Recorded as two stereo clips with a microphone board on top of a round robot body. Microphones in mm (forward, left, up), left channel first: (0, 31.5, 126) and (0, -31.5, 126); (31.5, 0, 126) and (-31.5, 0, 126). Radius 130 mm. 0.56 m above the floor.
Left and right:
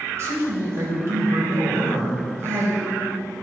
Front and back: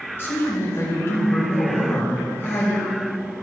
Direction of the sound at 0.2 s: 50° right.